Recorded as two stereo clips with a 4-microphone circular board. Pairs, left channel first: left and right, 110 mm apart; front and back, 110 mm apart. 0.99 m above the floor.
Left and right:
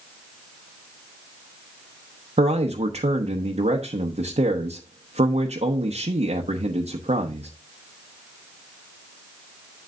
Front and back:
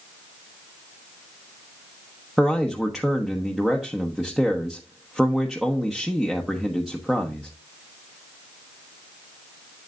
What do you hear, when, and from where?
2.4 s a man speaking: 95° right, 1.0 m